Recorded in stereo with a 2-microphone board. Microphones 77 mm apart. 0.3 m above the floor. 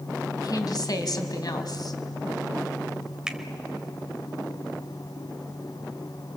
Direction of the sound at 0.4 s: 55° left (ahead or behind).